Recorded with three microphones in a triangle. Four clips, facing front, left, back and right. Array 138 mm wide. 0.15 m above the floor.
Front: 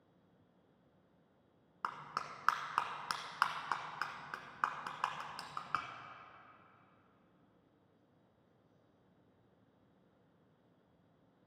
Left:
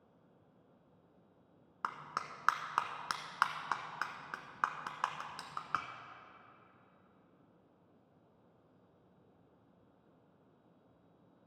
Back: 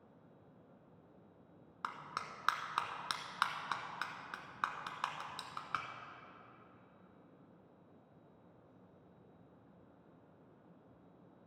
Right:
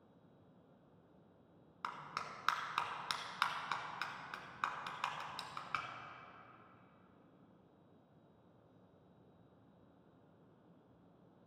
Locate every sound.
1.8 s a clap: 70° left, 0.9 m